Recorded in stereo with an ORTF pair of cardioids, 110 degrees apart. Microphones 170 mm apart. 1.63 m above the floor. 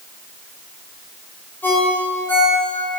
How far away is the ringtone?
About 1.7 m.